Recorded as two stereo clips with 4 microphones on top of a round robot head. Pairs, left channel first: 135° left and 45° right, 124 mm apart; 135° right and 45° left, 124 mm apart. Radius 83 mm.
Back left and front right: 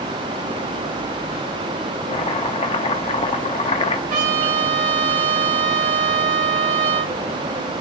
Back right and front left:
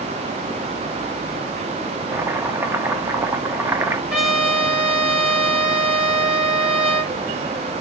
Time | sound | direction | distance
2.1 | chopping | 110° left | 1.0 m
4.1 | a trumpet | 40° right | 3.5 m